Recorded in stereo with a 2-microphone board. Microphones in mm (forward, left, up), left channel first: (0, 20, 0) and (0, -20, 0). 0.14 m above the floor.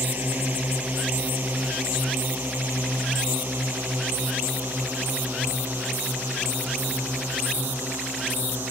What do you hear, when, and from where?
0.0 s a drone: 50° right (ahead or behind); by 8.7 s 70° right (ahead or behind)